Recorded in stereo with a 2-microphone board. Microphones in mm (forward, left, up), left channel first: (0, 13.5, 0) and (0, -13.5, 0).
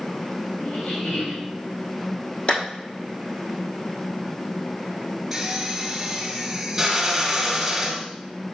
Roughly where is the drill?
Centre.